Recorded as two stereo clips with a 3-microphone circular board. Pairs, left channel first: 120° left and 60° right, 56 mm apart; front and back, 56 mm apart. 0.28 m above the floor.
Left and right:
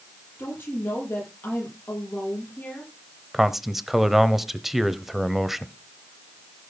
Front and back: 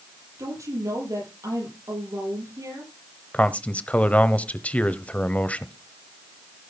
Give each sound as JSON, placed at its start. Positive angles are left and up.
{"t": 0.4, "sound": "a woman speaking", "azimuth_deg": 170, "distance_m": 8.5}
{"t": 3.3, "sound": "a man speaking", "azimuth_deg": 20, "distance_m": 1.0}